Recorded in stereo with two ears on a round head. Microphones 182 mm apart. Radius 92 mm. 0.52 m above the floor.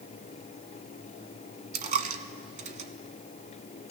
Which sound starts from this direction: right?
A dropped coin, at 1.7 s.